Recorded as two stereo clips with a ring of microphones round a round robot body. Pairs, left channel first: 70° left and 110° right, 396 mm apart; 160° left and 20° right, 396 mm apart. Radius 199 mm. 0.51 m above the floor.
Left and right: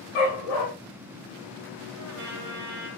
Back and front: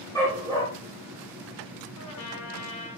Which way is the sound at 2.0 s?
165° right.